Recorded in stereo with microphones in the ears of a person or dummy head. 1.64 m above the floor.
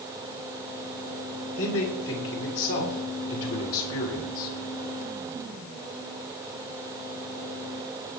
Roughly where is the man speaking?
Left.